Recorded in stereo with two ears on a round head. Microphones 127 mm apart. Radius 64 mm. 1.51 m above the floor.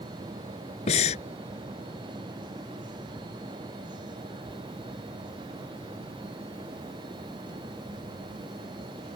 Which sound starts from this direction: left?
Breathing, at 0.9 s.